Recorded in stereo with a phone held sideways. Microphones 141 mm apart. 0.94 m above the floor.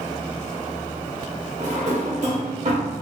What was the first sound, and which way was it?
A drawer, 60° right (ahead or behind).